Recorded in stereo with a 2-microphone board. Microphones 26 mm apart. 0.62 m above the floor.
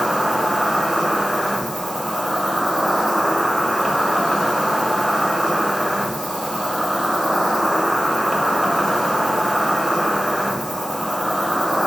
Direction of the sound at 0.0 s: 15° right (ahead or behind).